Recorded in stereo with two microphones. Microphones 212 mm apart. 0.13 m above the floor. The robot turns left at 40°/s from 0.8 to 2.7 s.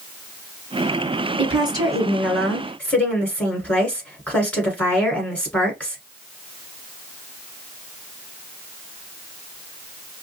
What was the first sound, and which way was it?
A woman speaking, 140° right.